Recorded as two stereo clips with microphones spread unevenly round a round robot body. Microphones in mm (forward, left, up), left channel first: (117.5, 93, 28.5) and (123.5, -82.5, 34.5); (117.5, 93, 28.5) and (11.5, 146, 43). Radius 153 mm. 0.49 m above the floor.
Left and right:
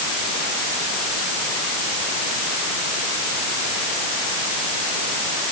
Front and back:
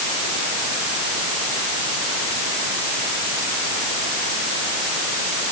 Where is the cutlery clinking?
I don't hear cutlery clinking.